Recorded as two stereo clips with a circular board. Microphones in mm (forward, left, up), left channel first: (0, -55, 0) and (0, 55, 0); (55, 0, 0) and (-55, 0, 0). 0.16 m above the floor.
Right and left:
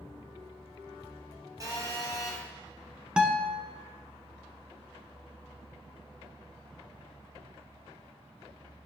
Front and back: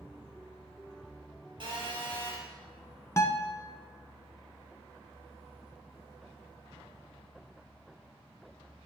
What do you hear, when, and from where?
1.6 s a phone buzzing: 145° left, 3 m
3.2 s a guitar: 20° left, 1.1 m